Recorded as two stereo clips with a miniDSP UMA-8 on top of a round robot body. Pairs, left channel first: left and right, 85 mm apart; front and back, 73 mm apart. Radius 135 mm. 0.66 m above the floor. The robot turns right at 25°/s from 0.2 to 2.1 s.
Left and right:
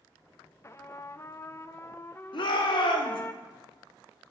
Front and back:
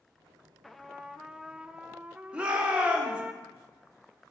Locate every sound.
0.6 s a trumpet: 85° left, 0.5 m; by 3.3 s 120° left, 0.5 m
2.3 s a shout: 105° left, 1.5 m